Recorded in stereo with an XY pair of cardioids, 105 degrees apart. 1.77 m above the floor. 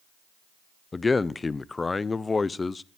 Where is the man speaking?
25° left, 0.9 m.